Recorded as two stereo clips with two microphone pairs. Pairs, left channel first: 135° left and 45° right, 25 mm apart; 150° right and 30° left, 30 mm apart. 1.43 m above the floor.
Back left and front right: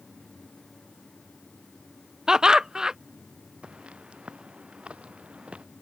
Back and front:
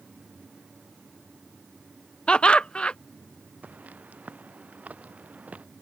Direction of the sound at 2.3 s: 100° right.